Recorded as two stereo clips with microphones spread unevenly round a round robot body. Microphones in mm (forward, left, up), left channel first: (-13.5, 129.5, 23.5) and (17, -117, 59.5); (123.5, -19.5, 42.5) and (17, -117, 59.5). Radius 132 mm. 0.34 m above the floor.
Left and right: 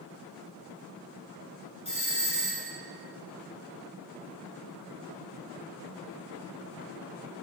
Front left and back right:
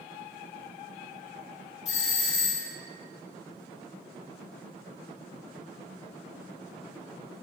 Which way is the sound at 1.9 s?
40° left.